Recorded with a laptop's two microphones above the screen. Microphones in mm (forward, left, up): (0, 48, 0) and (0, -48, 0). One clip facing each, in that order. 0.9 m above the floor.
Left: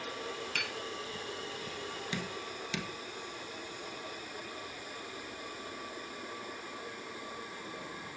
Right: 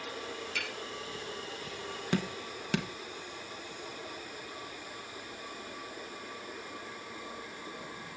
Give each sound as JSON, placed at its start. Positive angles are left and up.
{"t": 0.6, "sound": "tapping", "side_deg": 55, "distance_m": 4.5}
{"t": 2.1, "sound": "dripping", "side_deg": -50, "distance_m": 1.4}